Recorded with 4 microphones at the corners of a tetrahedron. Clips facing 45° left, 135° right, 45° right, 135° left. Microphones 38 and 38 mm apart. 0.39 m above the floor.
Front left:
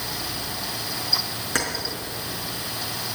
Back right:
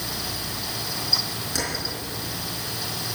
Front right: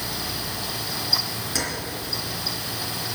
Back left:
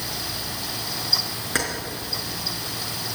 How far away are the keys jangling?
About 4 m.